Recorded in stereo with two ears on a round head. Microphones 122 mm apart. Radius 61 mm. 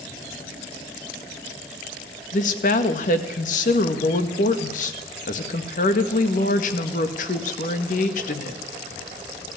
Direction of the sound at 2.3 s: 60° left (ahead or behind).